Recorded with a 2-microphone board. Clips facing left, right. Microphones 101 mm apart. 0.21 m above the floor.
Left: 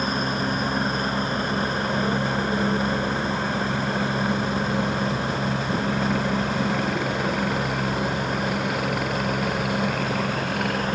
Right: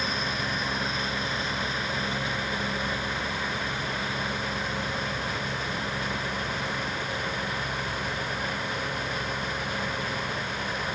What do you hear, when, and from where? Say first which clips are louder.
0.0 s a helicopter: left 6 dB; 45° left (ahead or behind); by 11.0 s 70° left (ahead or behind)